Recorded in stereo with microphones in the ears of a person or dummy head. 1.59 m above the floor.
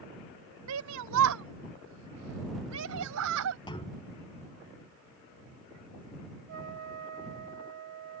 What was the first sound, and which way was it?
A shout, 80° right.